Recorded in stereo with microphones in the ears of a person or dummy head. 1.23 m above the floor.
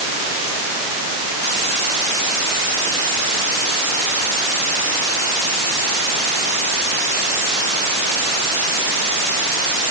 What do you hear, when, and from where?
Only background noise.